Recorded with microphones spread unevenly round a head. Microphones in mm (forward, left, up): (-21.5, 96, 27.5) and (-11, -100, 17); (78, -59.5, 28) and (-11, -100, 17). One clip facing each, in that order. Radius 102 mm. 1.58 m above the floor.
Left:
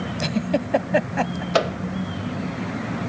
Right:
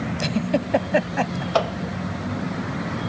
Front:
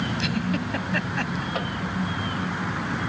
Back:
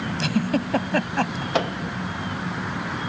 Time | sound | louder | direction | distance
0.2 | a giggle | even, back 3 dB | straight behind | ?
1.5 | a microwave | left 1 dB, back 10 dB | 155° left | ?